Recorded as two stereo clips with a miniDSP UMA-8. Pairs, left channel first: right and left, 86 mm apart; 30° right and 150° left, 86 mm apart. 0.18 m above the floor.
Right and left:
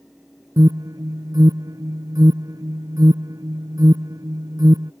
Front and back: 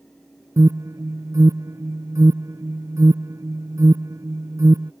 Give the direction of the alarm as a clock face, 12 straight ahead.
8 o'clock.